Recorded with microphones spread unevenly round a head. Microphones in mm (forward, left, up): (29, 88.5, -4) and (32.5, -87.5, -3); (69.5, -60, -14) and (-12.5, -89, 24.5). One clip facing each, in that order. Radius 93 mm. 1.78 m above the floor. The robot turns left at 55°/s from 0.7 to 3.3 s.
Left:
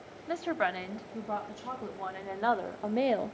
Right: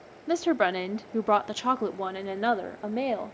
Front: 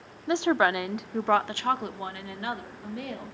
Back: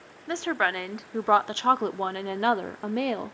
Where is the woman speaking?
55° right, 0.7 m; by 3.4 s 160° left, 0.7 m.